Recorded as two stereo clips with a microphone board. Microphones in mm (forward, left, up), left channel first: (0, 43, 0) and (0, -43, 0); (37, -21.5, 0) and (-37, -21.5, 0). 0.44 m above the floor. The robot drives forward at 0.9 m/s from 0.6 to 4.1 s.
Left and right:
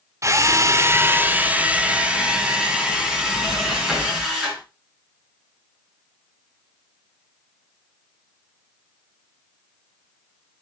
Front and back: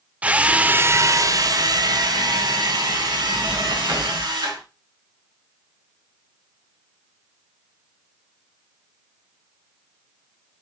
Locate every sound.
0.2 s a drill: 120° right, 0.7 m; by 4.6 s 175° right, 3.5 m